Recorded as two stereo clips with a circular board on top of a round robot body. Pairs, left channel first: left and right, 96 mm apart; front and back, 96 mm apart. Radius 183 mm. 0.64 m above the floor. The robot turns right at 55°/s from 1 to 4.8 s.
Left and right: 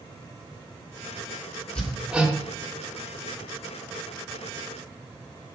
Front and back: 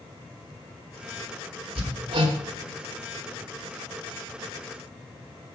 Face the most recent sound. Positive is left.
turn(degrees=-25)